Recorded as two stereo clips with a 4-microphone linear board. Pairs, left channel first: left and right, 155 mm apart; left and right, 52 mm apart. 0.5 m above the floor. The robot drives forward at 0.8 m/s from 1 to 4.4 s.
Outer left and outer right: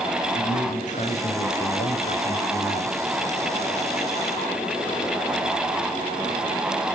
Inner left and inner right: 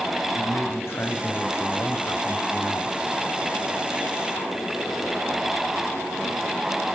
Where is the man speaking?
55° left (ahead or behind), 3 m; by 3.0 s 70° left (ahead or behind), 3 m.